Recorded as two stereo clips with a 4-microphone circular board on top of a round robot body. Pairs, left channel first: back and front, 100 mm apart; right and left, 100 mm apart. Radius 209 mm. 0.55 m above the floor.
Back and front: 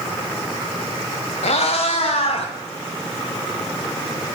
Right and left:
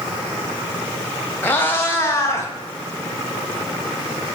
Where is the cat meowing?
160° right, 1.3 m.